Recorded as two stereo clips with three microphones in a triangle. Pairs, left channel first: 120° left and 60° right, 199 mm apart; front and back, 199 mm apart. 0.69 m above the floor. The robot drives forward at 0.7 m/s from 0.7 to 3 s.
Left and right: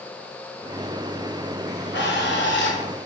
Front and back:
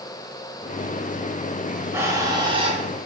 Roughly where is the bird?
Left.